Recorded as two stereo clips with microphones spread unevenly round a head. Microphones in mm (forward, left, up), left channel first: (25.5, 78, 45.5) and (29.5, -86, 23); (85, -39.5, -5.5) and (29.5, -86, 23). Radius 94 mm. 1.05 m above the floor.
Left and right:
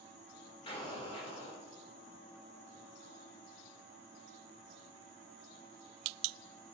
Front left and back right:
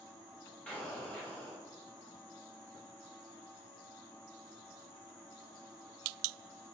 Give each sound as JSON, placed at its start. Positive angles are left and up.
{"t": 0.7, "sound": "an explosion", "azimuth_deg": 45, "distance_m": 0.9}